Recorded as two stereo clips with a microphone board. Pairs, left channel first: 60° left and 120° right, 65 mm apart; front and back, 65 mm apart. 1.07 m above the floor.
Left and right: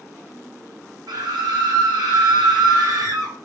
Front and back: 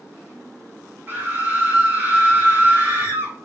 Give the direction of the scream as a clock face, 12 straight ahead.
4 o'clock.